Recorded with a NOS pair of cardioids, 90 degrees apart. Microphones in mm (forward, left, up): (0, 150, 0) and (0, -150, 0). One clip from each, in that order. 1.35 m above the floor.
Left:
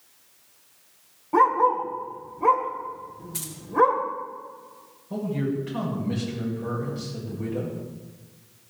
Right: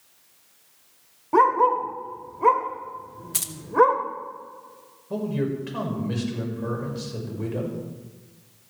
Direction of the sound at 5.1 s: 40° right.